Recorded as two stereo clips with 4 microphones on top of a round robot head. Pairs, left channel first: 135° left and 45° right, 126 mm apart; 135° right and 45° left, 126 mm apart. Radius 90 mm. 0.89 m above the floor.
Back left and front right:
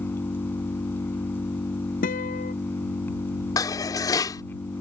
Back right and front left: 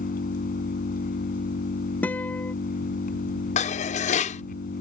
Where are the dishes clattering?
165° right.